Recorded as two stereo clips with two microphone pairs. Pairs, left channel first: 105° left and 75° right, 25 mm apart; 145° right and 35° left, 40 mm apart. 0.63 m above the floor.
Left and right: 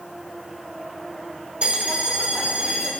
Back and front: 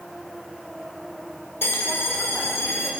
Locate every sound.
1.6 s a bell: 120° right, 1.3 m